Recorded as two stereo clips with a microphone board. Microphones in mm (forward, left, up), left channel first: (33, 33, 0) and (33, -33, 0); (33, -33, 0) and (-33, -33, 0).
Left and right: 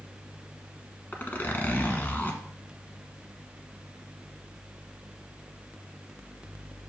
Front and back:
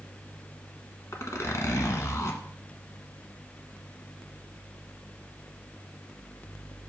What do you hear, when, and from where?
1.1 s a zipper: 30° left, 1.1 m